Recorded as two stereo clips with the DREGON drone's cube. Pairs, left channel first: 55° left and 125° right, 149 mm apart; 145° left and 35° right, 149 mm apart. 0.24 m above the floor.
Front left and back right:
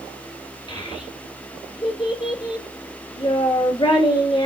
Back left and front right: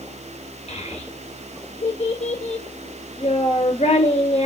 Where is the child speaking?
110° left, 2.0 m.